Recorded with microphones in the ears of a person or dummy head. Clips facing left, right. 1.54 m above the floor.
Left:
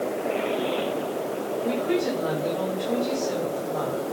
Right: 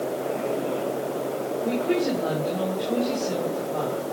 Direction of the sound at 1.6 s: 10° left (ahead or behind).